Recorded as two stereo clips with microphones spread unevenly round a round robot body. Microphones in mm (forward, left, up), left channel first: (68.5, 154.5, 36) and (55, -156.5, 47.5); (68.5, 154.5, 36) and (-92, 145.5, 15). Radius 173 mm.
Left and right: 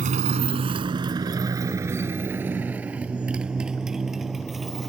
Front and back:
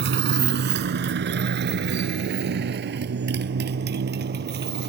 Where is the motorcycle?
160° right; by 4.9 s 175° left.